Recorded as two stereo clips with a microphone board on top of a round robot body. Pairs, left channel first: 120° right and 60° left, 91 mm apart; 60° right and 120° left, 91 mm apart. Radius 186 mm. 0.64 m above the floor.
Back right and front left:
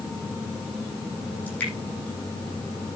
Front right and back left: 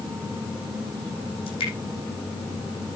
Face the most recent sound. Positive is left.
turn(degrees=-45)